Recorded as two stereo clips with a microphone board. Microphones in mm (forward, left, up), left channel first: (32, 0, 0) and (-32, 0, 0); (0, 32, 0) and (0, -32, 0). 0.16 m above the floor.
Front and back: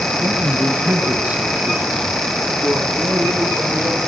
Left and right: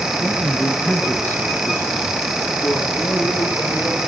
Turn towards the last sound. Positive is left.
turn(degrees=115)